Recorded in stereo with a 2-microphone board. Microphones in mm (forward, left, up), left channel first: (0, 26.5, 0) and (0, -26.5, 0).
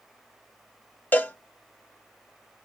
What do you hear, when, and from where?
1.1 s a cowbell: 30° left (ahead or behind), 0.7 m